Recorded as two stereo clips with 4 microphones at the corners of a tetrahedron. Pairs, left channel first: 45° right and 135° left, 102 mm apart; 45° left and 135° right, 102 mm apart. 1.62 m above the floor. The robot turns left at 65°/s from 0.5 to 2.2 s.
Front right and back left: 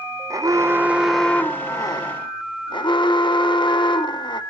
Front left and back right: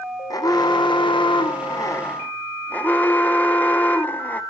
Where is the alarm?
85° left, 0.9 m; by 4.4 s 25° right, 0.9 m.